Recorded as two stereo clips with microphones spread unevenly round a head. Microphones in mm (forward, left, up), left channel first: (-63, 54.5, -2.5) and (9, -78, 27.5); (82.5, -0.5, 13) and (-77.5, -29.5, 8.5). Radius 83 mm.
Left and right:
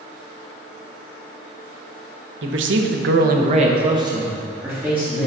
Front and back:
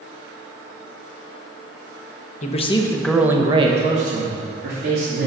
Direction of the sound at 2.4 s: 35° right.